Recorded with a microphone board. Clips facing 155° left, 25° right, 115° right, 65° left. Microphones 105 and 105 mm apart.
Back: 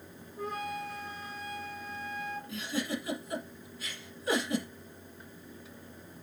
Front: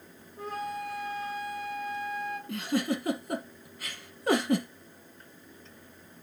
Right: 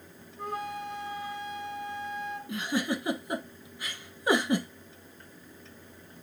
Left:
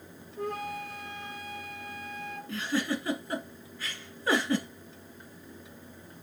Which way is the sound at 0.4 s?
65° left.